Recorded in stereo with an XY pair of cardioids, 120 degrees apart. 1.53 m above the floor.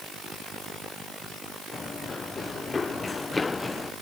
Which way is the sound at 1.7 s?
30° left.